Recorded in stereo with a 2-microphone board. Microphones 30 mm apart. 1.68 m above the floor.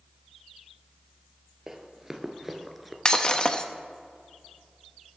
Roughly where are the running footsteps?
Centre.